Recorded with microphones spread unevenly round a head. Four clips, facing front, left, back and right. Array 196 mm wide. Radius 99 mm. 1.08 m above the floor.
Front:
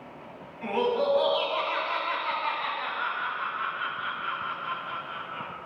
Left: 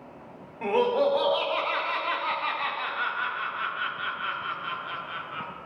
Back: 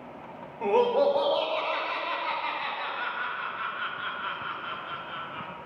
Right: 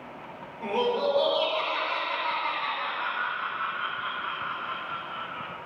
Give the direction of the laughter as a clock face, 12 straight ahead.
7 o'clock.